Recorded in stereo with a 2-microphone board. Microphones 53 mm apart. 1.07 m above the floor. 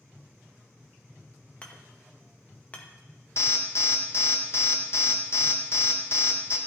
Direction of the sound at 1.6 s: 25° left (ahead or behind).